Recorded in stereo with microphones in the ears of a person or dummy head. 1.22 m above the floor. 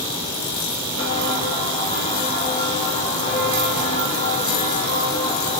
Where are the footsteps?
30° left (ahead or behind), 7.5 m; by 5.6 s 35° left (ahead or behind), 3.5 m.